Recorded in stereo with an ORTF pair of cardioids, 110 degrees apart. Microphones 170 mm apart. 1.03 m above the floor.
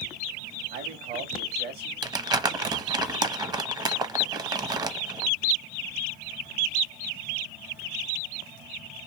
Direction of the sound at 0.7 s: 60° right.